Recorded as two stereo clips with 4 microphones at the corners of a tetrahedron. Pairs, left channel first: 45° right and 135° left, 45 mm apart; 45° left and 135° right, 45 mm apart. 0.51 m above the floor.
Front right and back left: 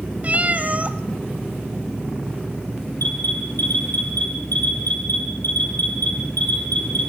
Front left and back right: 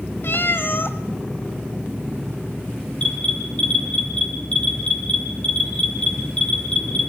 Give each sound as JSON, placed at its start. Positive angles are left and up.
{"t": 0.2, "sound": "a cat meowing", "azimuth_deg": 80, "distance_m": 1.2}
{"t": 3.0, "sound": "an alarm", "azimuth_deg": -20, "distance_m": 7.0}